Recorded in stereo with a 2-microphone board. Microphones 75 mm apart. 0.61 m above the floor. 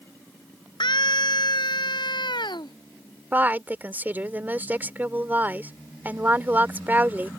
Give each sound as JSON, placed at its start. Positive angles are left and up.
{"t": 0.8, "sound": "a scream", "side_deg": 85}
{"t": 3.3, "sound": "a woman speaking", "side_deg": -25}